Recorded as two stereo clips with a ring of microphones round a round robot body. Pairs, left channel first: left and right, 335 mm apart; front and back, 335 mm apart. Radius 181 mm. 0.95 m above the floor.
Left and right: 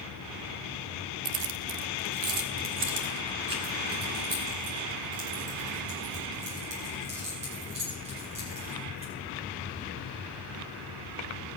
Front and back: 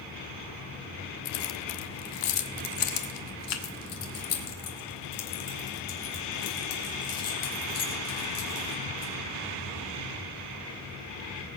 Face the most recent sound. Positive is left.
turn(degrees=-15)